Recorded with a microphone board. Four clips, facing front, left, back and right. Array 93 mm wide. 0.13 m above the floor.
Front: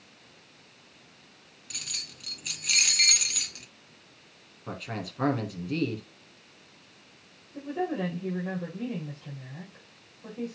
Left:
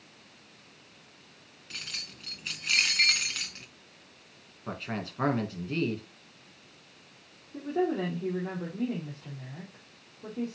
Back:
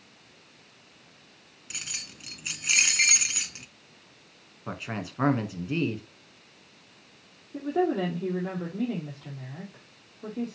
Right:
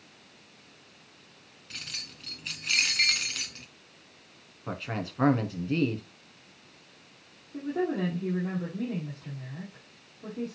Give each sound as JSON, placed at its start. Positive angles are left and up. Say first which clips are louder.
{"t": 1.7, "sound": "keys jangling", "louder": "left 1 dB, back 3 dB", "azimuth_deg": 165, "distance_m": 0.9}
{"t": 4.7, "sound": "a man speaking", "louder": "right 1 dB, back 1 dB", "azimuth_deg": -170, "distance_m": 1.3}
{"t": 7.5, "sound": "a woman speaking", "louder": "left 1 dB, back 5 dB", "azimuth_deg": 170, "distance_m": 4.5}